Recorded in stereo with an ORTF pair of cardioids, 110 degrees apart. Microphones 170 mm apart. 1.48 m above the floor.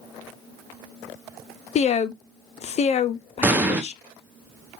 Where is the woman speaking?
40° left, 0.5 m.